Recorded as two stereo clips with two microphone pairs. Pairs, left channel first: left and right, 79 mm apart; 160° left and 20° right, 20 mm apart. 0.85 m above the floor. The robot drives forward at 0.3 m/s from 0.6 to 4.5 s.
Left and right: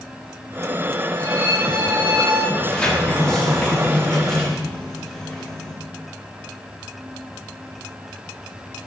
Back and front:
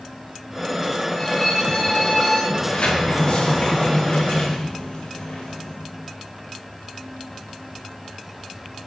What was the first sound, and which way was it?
A violin, 135° right.